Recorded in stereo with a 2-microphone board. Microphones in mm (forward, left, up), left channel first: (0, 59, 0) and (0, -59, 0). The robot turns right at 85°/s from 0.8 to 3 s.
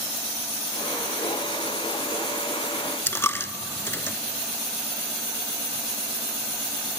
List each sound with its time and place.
3.1 s a dropped coin: 20° left (ahead or behind), 0.5 m